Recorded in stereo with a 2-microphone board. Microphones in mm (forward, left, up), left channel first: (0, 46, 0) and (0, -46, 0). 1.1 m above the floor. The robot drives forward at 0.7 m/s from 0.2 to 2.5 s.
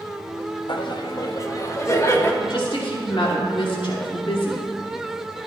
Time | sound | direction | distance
0.7 | laughter | 60° left (ahead or behind) | 1.2 m
2.4 | a woman speaking | 70° left (ahead or behind) | 2.5 m